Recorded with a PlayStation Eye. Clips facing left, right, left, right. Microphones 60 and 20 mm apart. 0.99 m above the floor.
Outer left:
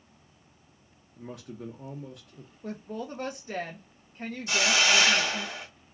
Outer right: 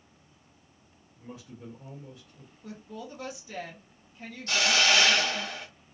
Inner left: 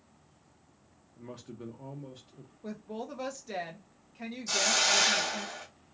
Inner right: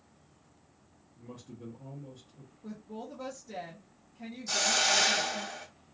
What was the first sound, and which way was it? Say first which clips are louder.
A man speaking: outer left 4 dB, inner left 3 dB; 70° left (ahead or behind).